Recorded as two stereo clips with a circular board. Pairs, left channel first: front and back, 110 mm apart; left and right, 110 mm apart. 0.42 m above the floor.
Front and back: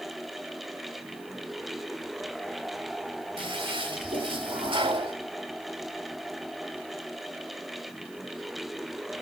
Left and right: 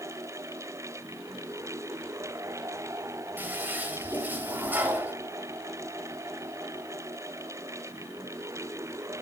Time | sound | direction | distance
3.4 | a toilet flushing | 160° right | 2 m